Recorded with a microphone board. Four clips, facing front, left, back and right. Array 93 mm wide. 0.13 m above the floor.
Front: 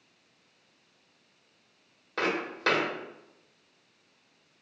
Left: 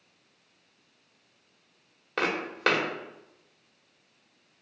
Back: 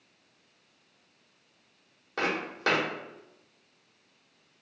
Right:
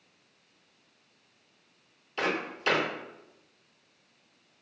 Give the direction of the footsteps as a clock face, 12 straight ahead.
9 o'clock.